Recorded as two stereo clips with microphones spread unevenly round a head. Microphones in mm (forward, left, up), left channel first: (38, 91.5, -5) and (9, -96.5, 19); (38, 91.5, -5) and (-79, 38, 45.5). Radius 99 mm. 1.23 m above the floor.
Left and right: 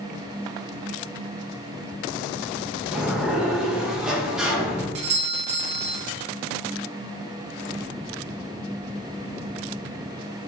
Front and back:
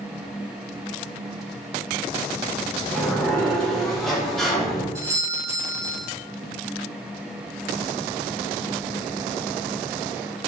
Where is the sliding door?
Straight ahead, 0.6 m.